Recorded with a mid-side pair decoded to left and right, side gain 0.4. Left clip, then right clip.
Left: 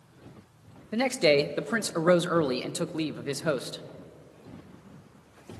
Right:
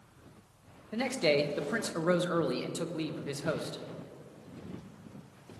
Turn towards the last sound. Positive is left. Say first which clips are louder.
# left 5 dB
turn(degrees=50)